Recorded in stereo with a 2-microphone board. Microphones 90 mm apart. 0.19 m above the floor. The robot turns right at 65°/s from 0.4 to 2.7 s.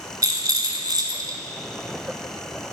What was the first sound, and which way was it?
A rattle, 120° right.